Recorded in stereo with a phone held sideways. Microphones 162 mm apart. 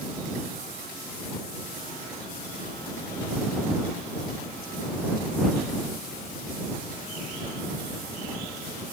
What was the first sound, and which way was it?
Only background noise.